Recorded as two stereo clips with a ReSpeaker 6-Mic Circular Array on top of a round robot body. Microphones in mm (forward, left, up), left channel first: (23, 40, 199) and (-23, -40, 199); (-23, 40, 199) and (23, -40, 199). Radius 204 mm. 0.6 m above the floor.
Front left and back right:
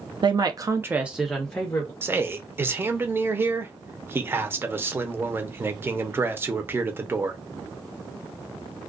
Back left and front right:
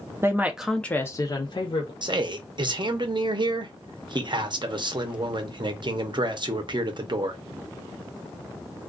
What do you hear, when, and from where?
0.2 s a woman speaking: 115° right, 0.8 m; by 1.9 s 130° left, 1.0 m
2.0 s a man speaking: 60° right, 0.8 m